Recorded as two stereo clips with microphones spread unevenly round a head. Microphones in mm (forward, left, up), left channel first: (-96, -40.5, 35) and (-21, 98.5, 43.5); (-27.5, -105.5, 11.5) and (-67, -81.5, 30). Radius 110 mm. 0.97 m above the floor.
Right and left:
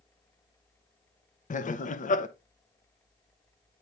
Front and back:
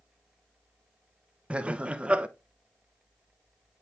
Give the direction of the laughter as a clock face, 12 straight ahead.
4 o'clock.